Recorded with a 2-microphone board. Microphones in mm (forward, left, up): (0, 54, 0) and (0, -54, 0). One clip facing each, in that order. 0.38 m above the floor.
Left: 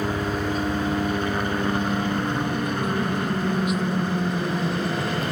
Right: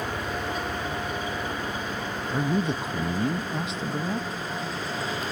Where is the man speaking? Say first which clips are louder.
Left 1 dB; 30° right (ahead or behind).